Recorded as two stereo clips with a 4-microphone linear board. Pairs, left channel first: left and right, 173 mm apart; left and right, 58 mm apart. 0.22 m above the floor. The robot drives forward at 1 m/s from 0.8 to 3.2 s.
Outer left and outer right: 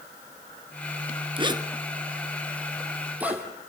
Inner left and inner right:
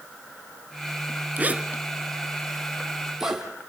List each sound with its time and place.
1.4 s a zipper: 30° right (ahead or behind), 0.7 m; by 3.4 s 10° right (ahead or behind), 2.5 m